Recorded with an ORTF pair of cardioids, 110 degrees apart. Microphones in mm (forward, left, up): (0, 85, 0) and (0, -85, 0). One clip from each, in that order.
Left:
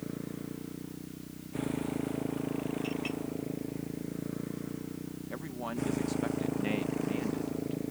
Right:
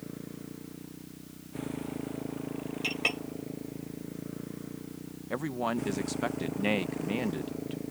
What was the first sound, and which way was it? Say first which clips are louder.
A motorcycle: left 3 dB; 15° left.